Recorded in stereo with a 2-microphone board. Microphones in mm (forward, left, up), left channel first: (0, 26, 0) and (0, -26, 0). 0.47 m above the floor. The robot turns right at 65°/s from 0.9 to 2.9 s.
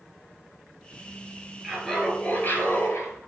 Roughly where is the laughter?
Ahead.